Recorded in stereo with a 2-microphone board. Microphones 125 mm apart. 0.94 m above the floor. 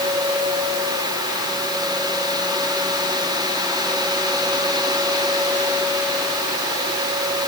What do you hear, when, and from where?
Only background noise.